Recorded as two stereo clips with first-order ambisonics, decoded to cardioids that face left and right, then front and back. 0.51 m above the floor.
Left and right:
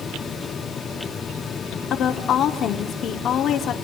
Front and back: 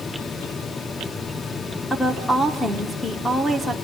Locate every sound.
1.9 s a woman speaking: 85° left, 1.2 m